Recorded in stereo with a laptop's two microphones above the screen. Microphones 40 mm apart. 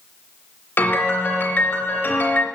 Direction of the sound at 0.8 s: 55° left (ahead or behind).